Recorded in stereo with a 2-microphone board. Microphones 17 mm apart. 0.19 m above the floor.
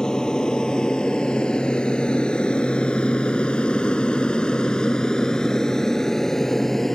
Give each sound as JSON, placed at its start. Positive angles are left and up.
{"t": 0.0, "sound": "an aircraft", "side_deg": 45}